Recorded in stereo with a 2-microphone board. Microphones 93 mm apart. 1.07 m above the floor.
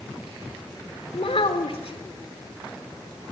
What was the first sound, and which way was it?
A child speaking, 80° left.